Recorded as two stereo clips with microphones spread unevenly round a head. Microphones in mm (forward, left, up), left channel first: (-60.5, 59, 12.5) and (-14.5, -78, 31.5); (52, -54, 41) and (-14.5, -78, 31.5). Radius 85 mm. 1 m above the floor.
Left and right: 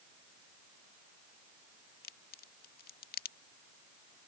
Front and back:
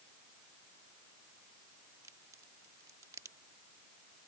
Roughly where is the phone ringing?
I don't hear a phone ringing.